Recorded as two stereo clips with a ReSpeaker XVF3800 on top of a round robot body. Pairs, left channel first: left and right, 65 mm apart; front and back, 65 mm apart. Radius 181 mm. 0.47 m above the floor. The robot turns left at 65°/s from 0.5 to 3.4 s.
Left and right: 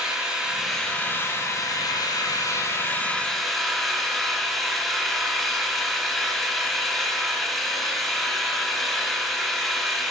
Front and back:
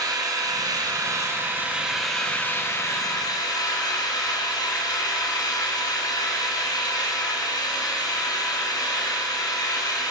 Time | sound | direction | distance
0.0 | an engine running | 170° right | 4 m